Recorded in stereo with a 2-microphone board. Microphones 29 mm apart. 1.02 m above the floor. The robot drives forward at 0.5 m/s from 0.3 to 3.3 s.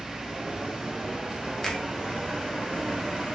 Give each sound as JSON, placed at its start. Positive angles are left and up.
{"t": 1.6, "sound": "a finger snap", "side_deg": 15, "distance_m": 0.8}